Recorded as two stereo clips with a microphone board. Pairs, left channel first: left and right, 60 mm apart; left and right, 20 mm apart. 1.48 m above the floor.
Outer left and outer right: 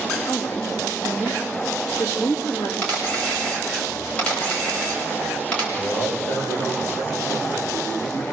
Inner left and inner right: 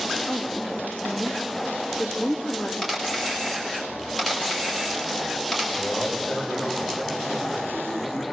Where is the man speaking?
45° left (ahead or behind), 7 m.